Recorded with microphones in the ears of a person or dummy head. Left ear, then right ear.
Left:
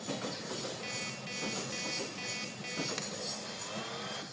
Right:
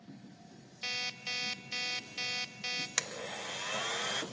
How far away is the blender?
About 1.0 m.